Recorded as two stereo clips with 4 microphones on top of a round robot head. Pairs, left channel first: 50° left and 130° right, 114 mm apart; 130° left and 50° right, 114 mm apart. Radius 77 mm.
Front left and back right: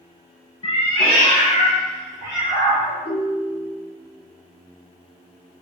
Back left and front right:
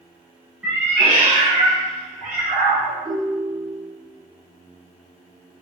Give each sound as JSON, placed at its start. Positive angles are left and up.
{"t": 0.6, "sound": "a cat meowing", "azimuth_deg": 25, "distance_m": 0.6}
{"t": 3.0, "sound": "a ringtone", "azimuth_deg": 5, "distance_m": 0.8}